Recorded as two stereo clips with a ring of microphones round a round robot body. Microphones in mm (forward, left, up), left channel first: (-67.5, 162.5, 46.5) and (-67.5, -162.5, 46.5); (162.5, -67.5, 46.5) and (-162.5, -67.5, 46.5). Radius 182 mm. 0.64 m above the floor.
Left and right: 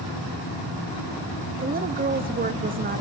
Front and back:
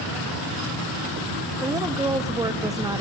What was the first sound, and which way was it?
A woman speaking, 110° right.